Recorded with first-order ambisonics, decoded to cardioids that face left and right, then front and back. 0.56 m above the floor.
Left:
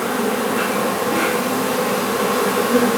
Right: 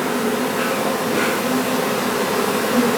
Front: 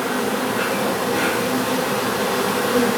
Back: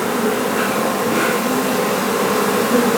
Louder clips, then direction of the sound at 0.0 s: Left 1 dB, back 3 dB; 175° left.